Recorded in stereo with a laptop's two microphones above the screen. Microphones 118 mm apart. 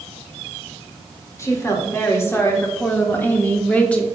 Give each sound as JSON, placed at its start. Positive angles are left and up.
{"t": 1.4, "sound": "a woman speaking", "side_deg": 25, "distance_m": 3.5}